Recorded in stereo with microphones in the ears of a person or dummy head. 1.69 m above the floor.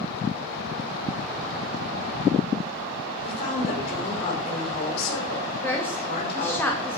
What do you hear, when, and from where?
3.2 s a woman speaking: 55° left (ahead or behind), 5 m
5.6 s a woman speaking: 10° left (ahead or behind), 1.8 m